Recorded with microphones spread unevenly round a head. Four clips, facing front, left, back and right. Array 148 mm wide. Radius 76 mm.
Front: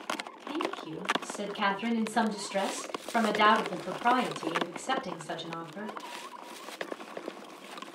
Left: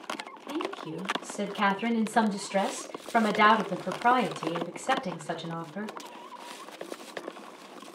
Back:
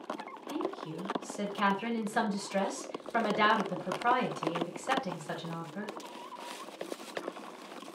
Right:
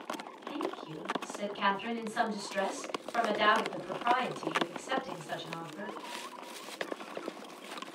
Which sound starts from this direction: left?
A woman speaking, at 0.5 s.